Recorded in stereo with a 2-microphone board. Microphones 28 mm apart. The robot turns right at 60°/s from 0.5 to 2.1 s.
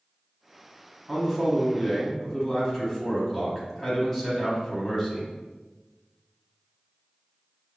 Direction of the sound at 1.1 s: 10° right (ahead or behind).